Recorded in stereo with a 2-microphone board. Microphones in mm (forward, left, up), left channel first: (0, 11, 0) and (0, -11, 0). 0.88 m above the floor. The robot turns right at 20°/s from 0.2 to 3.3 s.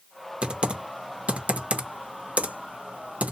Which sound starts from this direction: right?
Typing on a keyboard, at 0.4 s.